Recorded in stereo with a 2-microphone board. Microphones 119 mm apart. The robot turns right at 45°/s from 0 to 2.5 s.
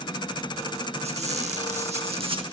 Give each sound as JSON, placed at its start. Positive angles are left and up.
{"t": 1.0, "sound": "a squeak", "azimuth_deg": -110, "distance_m": 1.2}